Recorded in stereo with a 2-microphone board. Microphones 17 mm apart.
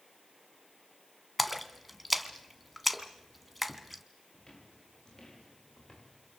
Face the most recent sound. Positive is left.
turn(degrees=45)  # may be behind; listen again after turning